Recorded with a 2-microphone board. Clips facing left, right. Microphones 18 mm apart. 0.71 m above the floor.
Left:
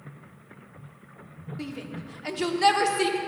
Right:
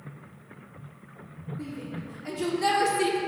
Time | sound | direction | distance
1.6 | a shout | 50° left (ahead or behind) | 1.5 m